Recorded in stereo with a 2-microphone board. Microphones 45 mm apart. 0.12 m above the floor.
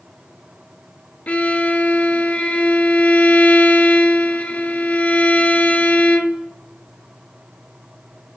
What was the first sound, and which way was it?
A violin, 35° left (ahead or behind).